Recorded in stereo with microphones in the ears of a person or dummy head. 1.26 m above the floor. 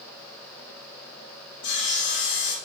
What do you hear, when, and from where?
1.6 s sawing: 70° left (ahead or behind), 2.5 m